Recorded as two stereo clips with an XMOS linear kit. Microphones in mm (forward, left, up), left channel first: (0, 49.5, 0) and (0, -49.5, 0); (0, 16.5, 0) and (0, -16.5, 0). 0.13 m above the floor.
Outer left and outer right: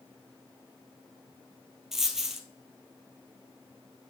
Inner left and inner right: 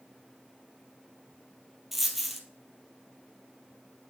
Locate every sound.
1.9 s a dropped coin: 5° right (ahead or behind), 1.2 m